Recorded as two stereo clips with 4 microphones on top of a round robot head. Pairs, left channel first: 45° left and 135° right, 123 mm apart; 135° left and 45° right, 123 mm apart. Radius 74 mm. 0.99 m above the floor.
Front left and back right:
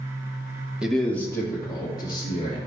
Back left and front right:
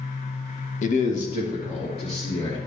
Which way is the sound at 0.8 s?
140° left.